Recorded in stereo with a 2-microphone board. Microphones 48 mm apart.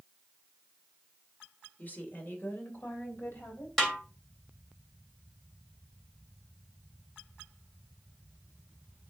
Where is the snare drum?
5° left (ahead or behind), 3 m.